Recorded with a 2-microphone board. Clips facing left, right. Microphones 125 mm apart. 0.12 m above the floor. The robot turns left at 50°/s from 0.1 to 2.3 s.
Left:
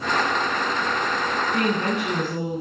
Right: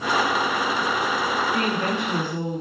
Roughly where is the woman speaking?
Left.